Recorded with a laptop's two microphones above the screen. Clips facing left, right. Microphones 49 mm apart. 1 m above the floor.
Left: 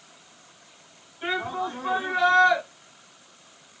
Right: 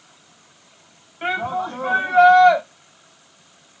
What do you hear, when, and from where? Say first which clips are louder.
1.2 s a shout: right 5 dB; 60° right (ahead or behind), 3.5 m